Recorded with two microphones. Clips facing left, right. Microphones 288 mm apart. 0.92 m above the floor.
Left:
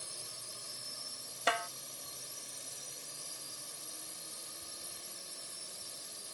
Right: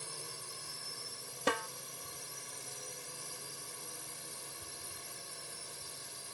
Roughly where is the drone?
Right.